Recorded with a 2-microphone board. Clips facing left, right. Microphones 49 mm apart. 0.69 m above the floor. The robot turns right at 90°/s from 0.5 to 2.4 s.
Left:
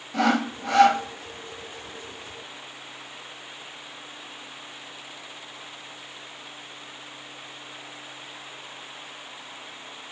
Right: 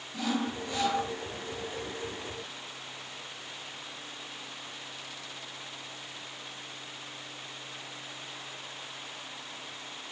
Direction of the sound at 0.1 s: 80° left.